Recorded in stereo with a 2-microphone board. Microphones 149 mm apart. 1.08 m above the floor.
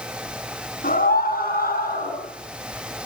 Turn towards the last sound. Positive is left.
turn(degrees=90)